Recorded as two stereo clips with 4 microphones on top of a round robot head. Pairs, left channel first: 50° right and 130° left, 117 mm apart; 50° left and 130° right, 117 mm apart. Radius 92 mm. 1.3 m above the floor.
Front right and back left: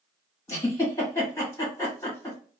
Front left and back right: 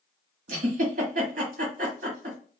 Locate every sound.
0.5 s a giggle: 120° right, 1.3 m